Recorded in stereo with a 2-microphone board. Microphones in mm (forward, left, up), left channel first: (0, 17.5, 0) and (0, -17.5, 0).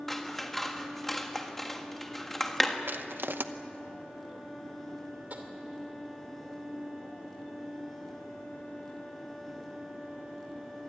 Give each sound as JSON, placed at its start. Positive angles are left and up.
{"t": 0.1, "sound": "scissors", "side_deg": 5, "distance_m": 1.6}
{"t": 2.9, "sound": "crushing", "side_deg": -85, "distance_m": 0.9}
{"t": 5.3, "sound": "tapping", "side_deg": -50, "distance_m": 2.5}